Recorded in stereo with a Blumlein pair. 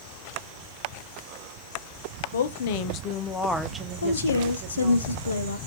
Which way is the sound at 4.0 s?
70° left.